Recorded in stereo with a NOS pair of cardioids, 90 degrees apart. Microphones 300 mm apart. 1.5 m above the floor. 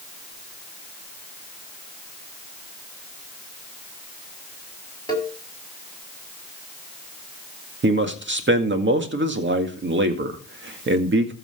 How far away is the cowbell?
About 4 m.